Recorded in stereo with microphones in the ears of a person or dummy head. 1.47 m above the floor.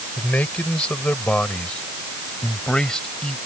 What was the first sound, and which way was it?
A man speaking, 10° left (ahead or behind).